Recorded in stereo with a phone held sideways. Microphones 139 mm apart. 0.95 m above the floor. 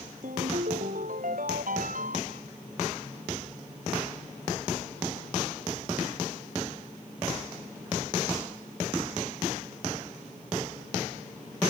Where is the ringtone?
70° right (ahead or behind).